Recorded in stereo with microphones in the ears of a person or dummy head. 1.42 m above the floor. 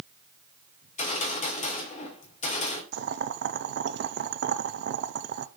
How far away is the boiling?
About 0.5 m.